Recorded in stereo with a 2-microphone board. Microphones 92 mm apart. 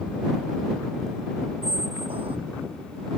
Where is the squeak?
80° right.